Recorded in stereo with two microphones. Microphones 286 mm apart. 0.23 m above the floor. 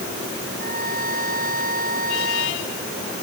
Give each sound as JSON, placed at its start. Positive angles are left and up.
{"t": 0.6, "sound": "a trumpet", "side_deg": -30}